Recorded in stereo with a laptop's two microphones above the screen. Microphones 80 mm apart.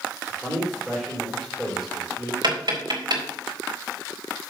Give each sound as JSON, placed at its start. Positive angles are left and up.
{"t": 0.3, "sound": "a man speaking", "side_deg": -5, "distance_m": 3.5}
{"t": 2.4, "sound": "tapping", "side_deg": -65, "distance_m": 4.0}